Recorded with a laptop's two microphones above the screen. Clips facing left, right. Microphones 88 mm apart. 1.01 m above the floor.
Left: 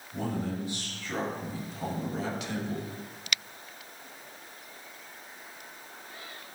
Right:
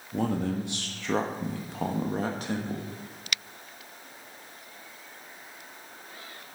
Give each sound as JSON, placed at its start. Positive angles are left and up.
{"t": 0.1, "sound": "a man speaking", "side_deg": -65, "distance_m": 1.3}